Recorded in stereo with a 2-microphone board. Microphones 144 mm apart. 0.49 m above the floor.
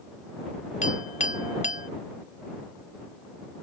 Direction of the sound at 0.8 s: 50° left (ahead or behind).